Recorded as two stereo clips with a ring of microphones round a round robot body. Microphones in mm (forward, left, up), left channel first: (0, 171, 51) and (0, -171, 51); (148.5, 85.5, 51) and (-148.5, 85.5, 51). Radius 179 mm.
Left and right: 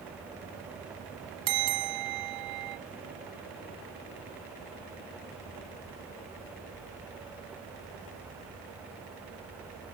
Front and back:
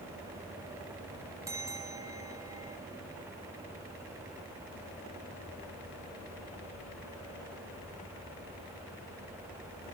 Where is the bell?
100° right, 1.4 m.